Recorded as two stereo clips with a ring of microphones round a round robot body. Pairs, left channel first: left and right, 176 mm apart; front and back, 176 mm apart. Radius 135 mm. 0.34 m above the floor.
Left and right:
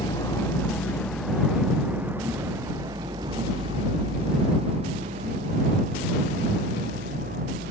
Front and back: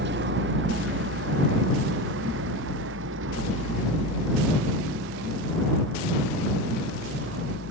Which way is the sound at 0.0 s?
165° left.